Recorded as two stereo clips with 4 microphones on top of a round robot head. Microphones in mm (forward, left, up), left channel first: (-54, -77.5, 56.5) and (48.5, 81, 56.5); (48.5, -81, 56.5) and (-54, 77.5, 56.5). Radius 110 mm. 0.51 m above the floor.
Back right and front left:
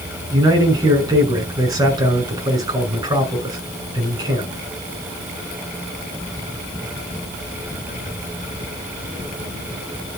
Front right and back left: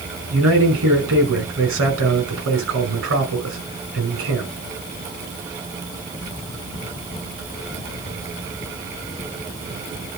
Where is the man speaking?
130° left, 5.5 m.